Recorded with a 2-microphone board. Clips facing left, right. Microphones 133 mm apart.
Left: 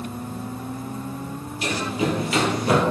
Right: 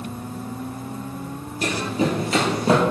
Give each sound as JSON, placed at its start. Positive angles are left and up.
{"t": 1.6, "sound": "running footsteps", "side_deg": -45, "distance_m": 1.7}